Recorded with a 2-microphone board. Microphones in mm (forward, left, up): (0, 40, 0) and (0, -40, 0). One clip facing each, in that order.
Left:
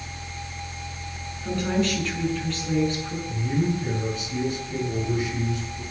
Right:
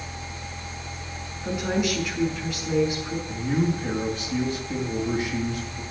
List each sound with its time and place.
1.4 s a woman speaking: 10° right (ahead or behind), 6 m
3.3 s a man speaking: 45° right (ahead or behind), 6.5 m